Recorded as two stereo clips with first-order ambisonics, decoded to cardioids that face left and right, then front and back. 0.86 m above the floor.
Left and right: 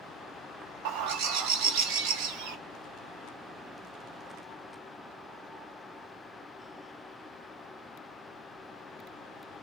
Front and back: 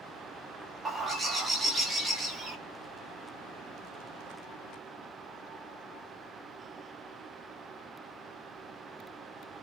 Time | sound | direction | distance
0.8 | a bird | 100° right | 0.8 m